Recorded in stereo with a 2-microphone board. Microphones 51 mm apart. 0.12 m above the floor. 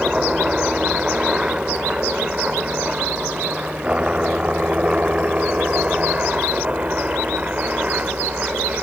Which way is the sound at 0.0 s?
15° right (ahead or behind).